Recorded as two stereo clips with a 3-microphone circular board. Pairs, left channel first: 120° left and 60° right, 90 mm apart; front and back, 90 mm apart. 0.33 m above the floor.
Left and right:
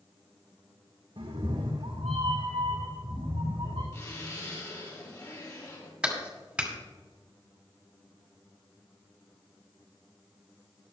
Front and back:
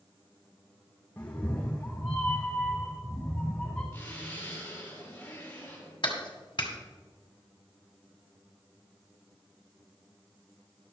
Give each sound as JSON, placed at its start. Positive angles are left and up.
{"t": 1.2, "sound": "a cat meowing", "azimuth_deg": -70, "distance_m": 2.0}
{"t": 3.9, "sound": "a zipper", "azimuth_deg": 70, "distance_m": 5.0}
{"t": 6.0, "sound": "a clap", "azimuth_deg": 20, "distance_m": 2.0}